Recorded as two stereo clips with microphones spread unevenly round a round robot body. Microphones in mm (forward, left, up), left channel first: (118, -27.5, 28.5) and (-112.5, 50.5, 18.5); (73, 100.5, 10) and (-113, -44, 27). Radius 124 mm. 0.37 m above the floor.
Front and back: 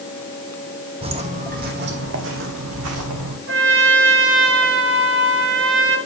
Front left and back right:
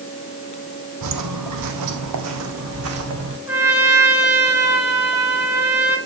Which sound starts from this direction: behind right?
Footsteps, at 1.0 s.